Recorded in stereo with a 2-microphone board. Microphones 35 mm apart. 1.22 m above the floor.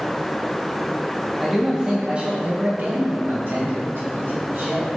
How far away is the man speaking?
About 0.9 m.